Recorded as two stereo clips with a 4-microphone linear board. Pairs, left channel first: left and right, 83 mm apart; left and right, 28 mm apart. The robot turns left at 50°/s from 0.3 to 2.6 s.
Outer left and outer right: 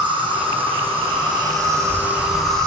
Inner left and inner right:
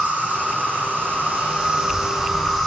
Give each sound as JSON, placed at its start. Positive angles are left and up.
{"t": 0.0, "sound": "an insect", "azimuth_deg": -70, "distance_m": 6.5}